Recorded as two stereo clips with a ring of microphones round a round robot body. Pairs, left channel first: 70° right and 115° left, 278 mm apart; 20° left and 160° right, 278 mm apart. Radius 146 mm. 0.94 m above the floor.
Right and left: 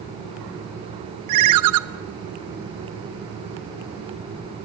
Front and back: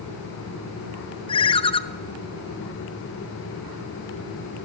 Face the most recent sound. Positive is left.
turn(degrees=95)